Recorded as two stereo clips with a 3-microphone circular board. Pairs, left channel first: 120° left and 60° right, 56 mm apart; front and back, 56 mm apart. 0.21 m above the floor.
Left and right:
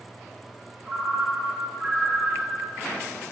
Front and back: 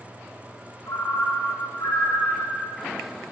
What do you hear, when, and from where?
0.9 s a ringtone: 25° left, 5.5 m